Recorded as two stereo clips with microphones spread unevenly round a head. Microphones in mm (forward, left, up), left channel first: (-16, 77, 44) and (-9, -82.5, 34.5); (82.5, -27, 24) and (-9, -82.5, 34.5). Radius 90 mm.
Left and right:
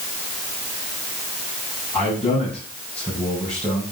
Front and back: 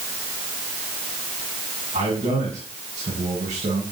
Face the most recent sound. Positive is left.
turn(degrees=175)